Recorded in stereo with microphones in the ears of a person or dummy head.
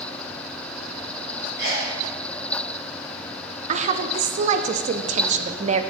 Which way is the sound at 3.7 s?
40° right (ahead or behind).